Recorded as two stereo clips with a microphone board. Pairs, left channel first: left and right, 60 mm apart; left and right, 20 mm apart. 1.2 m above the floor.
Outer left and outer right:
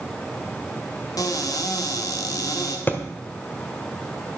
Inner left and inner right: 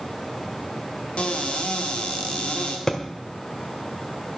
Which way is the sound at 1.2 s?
75° left (ahead or behind).